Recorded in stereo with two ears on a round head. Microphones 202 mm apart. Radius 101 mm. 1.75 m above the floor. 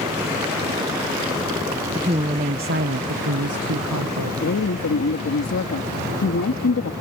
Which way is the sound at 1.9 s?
20° right (ahead or behind).